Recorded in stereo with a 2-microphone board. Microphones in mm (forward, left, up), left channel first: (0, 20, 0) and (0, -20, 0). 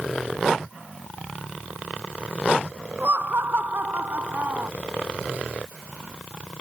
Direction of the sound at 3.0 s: 55° right (ahead or behind).